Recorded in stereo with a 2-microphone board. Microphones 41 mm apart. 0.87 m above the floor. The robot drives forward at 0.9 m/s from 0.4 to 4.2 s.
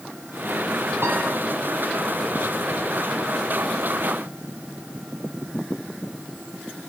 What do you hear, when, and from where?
1.0 s a piano: 80° right, 2.5 m